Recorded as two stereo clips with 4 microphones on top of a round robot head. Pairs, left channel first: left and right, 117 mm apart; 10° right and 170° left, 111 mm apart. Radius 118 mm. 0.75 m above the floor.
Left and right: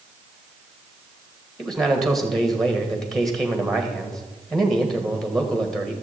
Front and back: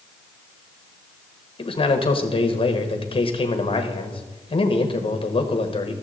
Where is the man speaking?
5° left, 1.2 m.